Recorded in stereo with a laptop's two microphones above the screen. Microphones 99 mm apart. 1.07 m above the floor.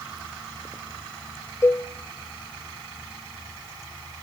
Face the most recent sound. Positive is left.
turn(degrees=30)  # may be behind; listen again after turning